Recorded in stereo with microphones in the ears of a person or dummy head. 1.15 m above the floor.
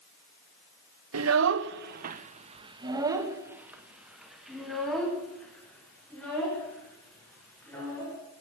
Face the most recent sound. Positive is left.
turn(degrees=10)  # may be behind; listen again after turning